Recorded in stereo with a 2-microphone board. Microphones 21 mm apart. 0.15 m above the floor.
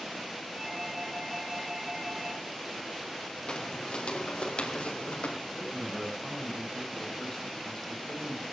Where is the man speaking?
30° left (ahead or behind), 7 m.